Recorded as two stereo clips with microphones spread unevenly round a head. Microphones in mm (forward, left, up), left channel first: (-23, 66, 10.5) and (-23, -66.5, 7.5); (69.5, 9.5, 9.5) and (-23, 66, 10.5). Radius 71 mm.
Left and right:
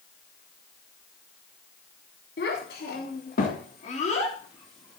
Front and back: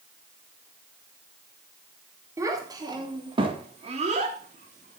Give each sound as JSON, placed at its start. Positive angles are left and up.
{"t": 2.4, "sound": "a child speaking", "azimuth_deg": 85, "distance_m": 4.0}